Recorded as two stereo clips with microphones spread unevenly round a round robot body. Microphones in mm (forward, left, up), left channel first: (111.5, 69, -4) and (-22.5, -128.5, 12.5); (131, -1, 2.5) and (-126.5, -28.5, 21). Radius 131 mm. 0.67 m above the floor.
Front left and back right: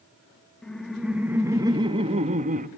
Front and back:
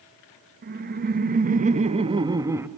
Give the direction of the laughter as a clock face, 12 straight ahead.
7 o'clock.